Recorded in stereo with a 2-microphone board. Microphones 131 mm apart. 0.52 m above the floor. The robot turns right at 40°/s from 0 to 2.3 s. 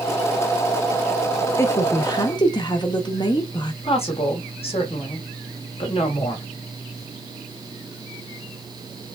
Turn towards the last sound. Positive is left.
turn(degrees=50)  # may be behind; listen again after turning